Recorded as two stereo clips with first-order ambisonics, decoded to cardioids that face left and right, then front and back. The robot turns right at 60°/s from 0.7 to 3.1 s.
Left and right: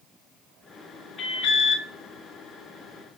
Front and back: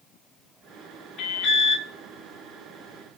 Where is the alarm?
45° left, 3 m; by 1.9 s 85° left, 3 m.